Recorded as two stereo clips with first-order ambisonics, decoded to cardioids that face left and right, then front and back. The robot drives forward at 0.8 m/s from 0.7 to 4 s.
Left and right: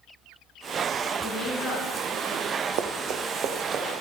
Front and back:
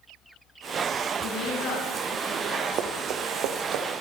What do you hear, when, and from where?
1.2 s a woman speaking: 10° right, 7 m
2.8 s running footsteps: 120° right, 1.7 m; by 4.0 s 150° right, 3.5 m